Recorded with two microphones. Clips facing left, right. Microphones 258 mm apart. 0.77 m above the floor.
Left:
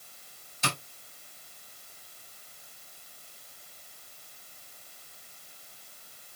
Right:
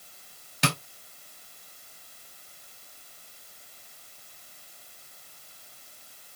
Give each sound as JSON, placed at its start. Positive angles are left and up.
{"t": 0.6, "sound": "tapping", "side_deg": -85, "distance_m": 4.0}